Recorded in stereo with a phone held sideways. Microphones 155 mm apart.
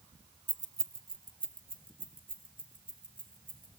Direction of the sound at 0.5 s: 55° right (ahead or behind).